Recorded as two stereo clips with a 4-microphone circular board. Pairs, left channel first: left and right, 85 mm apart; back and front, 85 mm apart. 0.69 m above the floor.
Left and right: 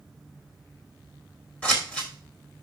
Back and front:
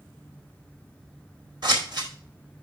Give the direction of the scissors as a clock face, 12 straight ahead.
11 o'clock.